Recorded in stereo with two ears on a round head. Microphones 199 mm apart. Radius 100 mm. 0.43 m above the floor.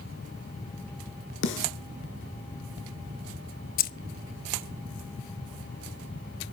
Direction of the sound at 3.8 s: 40° left (ahead or behind).